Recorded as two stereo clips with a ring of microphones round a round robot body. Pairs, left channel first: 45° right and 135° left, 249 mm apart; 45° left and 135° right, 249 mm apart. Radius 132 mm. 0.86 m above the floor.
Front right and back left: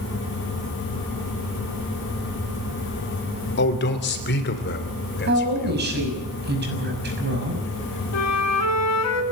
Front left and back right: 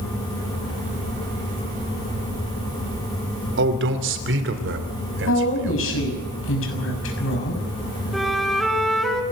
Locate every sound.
3.6 s a man speaking: 90° right, 2.5 m; by 6.2 s 95° right, 3.5 m
5.3 s a woman speaking: 85° left, 6.5 m
8.1 s a flute: 45° right, 2.5 m